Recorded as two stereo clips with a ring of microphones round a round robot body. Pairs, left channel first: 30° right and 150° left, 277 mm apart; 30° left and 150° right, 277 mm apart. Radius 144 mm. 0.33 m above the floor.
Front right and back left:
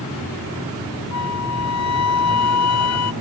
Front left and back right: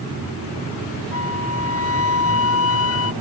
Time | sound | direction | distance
1.1 | a flute | 5° right | ?